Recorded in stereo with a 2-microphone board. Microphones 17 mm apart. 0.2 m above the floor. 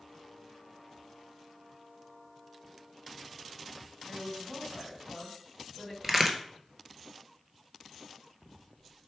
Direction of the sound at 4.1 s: 20° right (ahead or behind).